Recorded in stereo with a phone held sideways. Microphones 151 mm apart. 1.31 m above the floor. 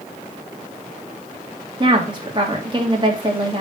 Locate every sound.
1.8 s a woman speaking: 30° right (ahead or behind), 2.5 m